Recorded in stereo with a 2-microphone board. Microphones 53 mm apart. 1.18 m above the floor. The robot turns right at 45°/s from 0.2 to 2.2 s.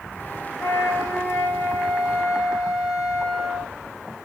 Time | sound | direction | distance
0.6 | a flute | 110° left | 2 m